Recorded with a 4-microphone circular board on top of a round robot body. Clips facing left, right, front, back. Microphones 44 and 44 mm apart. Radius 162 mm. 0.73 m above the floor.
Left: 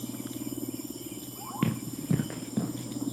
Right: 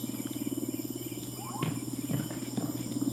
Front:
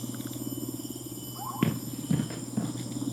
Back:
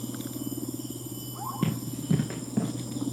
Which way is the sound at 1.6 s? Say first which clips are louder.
Left 5 dB, front 1 dB; 40° left.